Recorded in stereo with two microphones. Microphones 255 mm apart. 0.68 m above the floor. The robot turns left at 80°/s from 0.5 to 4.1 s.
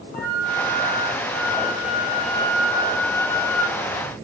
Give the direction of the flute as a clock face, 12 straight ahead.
6 o'clock.